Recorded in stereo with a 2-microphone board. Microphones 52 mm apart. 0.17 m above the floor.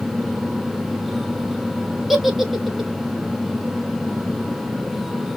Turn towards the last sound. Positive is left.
turn(degrees=0)  # may be behind; listen again after turning